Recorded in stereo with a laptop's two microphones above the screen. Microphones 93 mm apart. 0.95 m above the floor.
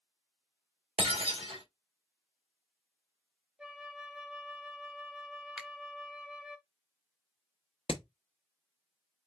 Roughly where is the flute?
Centre.